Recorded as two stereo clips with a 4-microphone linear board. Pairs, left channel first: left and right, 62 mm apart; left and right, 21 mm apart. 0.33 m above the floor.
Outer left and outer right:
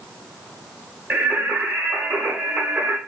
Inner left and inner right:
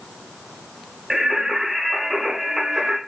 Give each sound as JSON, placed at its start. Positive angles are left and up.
{"t": 1.1, "sound": "singing", "side_deg": -25, "distance_m": 1.2}